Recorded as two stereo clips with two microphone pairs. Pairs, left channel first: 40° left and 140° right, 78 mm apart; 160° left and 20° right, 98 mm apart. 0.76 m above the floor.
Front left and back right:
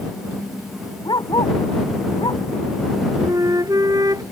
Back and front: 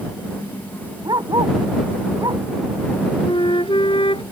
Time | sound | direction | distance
1.1 | a dog barking | 20° left | ?
3.2 | a flute | straight behind | ?